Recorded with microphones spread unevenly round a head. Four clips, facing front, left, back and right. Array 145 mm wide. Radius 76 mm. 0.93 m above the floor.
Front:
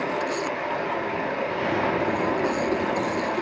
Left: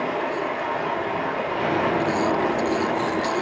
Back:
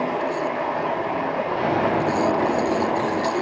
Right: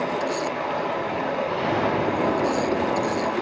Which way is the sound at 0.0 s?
175° right.